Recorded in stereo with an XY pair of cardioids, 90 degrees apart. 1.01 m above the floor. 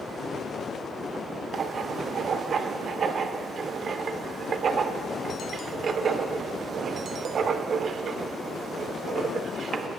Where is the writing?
55° right, 0.5 m.